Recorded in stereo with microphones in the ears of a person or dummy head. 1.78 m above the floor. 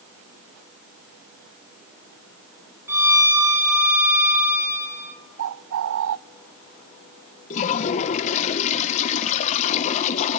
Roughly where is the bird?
Right.